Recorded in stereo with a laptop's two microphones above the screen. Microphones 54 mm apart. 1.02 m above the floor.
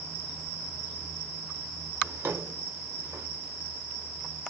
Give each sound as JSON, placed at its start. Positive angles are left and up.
{"t": 2.0, "sound": "a drawer", "side_deg": -55, "distance_m": 1.0}